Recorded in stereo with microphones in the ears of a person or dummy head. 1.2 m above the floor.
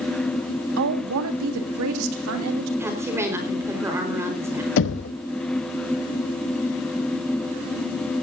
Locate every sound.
0.8 s a woman speaking: 70° right (ahead or behind), 1.8 m; by 2.7 s 80° right, 3 m
2.8 s a woman speaking: 10° right (ahead or behind), 4.5 m
4.8 s knocking: 65° left (ahead or behind), 1.1 m